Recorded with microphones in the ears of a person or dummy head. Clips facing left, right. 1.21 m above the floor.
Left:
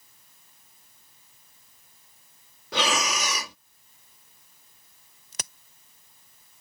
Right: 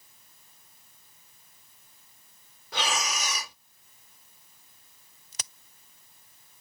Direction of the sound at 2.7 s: 60° left (ahead or behind).